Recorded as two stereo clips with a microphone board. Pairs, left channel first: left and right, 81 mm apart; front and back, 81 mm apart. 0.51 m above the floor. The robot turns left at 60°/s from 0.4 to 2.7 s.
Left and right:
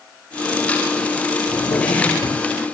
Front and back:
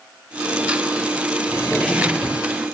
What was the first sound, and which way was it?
A drawer, 100° left.